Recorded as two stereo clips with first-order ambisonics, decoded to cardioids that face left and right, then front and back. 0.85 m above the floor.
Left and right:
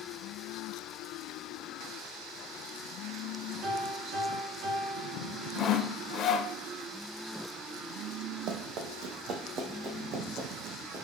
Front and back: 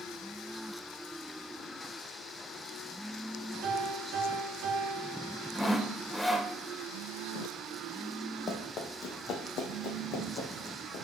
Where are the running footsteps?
60° right, 1.7 m; by 11.0 s 35° right, 3 m.